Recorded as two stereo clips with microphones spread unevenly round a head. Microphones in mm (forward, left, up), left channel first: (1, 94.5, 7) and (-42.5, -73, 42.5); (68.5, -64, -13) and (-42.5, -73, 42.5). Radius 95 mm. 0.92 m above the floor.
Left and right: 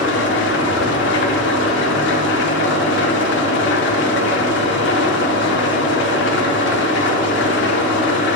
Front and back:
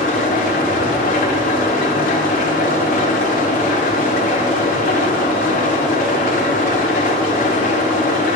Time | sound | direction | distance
0.0 | an engine running | 40° left | 1.0 m